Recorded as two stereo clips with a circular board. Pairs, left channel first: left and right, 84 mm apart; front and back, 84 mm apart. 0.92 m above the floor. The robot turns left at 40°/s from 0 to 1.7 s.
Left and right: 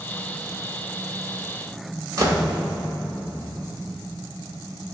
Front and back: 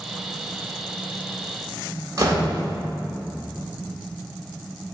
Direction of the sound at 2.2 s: 130° right.